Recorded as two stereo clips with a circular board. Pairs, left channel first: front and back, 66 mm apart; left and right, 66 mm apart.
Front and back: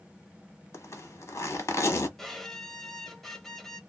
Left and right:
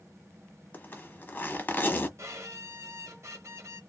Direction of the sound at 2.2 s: 85° right.